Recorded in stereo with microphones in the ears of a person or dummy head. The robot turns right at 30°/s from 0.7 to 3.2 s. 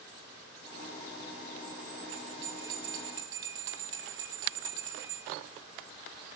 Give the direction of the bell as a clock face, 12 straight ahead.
3 o'clock.